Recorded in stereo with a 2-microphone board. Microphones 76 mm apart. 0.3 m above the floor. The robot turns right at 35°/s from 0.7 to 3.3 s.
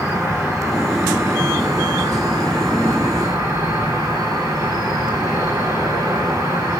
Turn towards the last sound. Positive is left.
turn(degrees=-70)